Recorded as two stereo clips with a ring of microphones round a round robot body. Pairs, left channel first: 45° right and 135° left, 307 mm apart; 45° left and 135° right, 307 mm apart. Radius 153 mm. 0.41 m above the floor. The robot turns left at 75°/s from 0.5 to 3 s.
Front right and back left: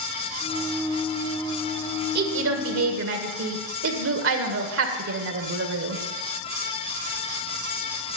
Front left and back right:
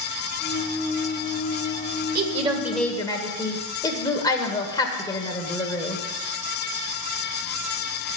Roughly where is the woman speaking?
Behind.